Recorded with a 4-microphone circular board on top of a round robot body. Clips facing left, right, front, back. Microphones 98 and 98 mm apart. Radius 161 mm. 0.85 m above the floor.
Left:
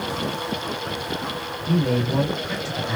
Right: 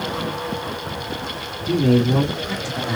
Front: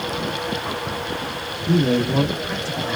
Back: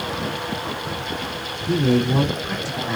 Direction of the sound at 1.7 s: 95° right.